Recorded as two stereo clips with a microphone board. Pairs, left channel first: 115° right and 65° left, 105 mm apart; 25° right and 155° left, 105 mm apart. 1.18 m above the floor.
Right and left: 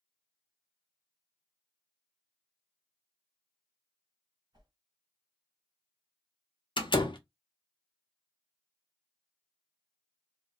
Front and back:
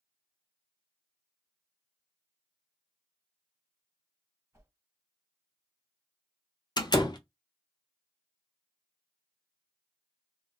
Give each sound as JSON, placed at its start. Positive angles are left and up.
{"t": 4.5, "sound": "a whoosh", "azimuth_deg": 95, "distance_m": 1.6}
{"t": 6.8, "sound": "a door slam", "azimuth_deg": -70, "distance_m": 0.5}